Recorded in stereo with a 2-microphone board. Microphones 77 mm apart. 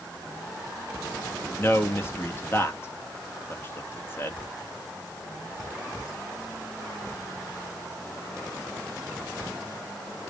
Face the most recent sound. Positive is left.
turn(degrees=30)  # may be behind; listen again after turning